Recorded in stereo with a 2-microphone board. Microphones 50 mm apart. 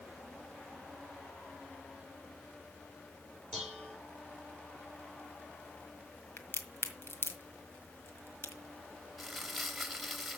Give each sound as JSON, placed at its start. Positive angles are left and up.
{"t": 3.5, "sound": "dishes clattering", "side_deg": 15, "distance_m": 6.0}
{"t": 6.4, "sound": "a crack", "side_deg": 55, "distance_m": 1.5}
{"t": 9.2, "sound": "crumpling", "side_deg": 0, "distance_m": 1.7}